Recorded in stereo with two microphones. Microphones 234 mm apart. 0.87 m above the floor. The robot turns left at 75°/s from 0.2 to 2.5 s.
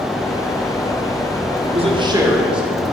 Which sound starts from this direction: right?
A man speaking, at 1.6 s.